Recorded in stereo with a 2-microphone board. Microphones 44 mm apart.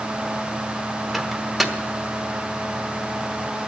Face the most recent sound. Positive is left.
turn(degrees=0)  # may be behind; listen again after turning